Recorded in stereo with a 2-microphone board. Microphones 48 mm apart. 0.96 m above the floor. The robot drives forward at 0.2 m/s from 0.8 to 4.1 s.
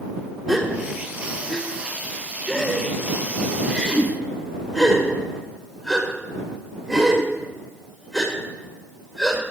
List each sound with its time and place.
0.5 s a gasp: 5° right (ahead or behind), 1.4 m